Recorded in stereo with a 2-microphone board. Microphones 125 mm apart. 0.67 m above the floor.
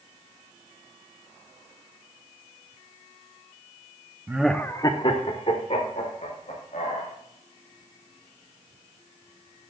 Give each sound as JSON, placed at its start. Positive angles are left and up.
{"t": 4.3, "sound": "laughter", "side_deg": -15, "distance_m": 0.6}